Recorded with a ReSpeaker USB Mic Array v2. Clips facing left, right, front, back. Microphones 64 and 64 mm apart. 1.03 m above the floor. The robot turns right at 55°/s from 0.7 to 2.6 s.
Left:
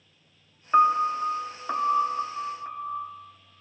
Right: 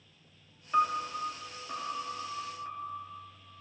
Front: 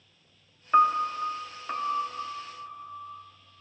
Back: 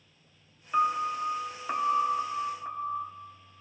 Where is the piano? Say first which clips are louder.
Left 9 dB, front 5 dB; 45° left, 0.6 m; by 3.1 s 150° left, 0.6 m.